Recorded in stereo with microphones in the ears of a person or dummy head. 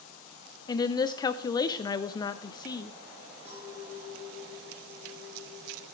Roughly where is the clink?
Centre.